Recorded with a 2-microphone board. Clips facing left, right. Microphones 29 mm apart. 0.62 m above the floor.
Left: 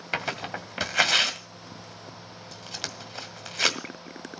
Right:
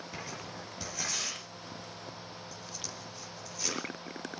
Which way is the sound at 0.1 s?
80° left.